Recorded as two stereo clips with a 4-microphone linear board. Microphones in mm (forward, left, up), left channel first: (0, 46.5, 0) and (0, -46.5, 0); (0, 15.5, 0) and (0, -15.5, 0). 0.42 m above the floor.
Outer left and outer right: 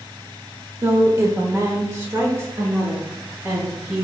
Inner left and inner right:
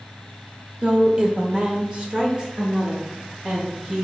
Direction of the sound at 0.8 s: 30° right (ahead or behind).